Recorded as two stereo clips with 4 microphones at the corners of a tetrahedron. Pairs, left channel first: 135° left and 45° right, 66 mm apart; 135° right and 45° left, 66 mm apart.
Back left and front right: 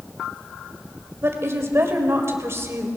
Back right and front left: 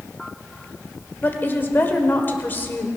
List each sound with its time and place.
1.2 s a woman speaking: 80° right, 1.7 m